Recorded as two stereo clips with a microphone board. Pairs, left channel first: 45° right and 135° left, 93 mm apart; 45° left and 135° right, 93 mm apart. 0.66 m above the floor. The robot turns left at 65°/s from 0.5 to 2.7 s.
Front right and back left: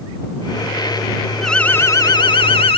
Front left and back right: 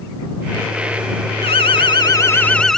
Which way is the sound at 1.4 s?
45° left.